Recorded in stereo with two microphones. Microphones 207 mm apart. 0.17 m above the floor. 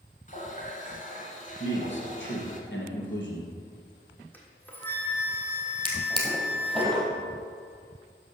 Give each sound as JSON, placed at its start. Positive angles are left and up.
{"t": 0.3, "sound": "a running tap", "side_deg": 40, "distance_m": 1.1}
{"t": 1.6, "sound": "a man speaking", "side_deg": 65, "distance_m": 2.5}
{"t": 4.3, "sound": "a flute", "side_deg": 10, "distance_m": 1.4}
{"t": 5.8, "sound": "a drawer", "side_deg": 5, "distance_m": 2.0}